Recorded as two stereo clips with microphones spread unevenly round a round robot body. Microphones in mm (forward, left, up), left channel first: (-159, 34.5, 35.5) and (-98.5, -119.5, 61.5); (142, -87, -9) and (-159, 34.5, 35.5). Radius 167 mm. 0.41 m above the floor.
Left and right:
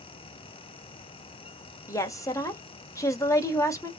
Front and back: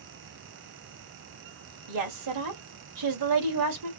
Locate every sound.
1.9 s a woman speaking: 175° left, 1.5 m